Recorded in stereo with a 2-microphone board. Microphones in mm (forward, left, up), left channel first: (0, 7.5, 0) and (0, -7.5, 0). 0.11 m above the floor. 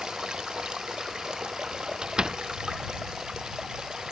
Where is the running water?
60° right (ahead or behind).